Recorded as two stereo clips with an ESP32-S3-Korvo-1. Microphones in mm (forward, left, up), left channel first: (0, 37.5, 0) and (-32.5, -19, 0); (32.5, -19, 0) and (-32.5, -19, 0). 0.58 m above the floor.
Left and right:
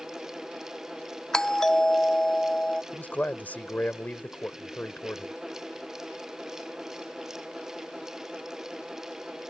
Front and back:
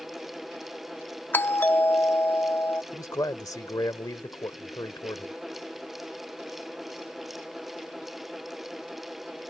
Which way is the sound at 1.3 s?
10° right.